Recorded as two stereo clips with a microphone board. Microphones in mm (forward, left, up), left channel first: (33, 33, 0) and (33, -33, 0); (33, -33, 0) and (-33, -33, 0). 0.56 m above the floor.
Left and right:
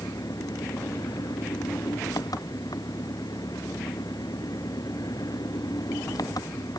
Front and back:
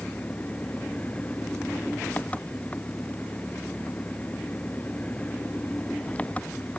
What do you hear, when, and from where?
0.0 s an engine running: 70° left